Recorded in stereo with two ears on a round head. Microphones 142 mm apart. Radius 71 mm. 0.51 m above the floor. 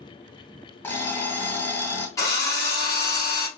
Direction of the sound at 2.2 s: 20° left (ahead or behind).